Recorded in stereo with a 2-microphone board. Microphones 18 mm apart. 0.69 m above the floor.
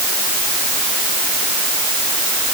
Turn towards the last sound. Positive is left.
No sound to turn to.